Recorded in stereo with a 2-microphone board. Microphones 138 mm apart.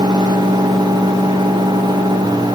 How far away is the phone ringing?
No phone ringing in this recording.